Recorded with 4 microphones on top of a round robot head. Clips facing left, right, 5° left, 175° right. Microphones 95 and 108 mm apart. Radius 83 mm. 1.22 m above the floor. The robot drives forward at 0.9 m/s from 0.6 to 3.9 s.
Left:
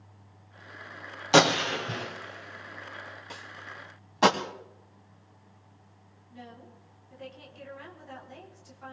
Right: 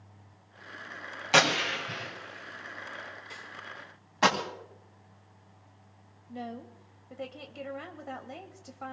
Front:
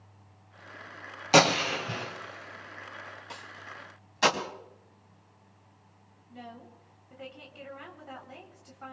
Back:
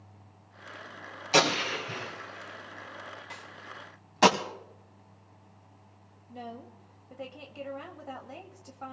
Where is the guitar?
No guitar in this recording.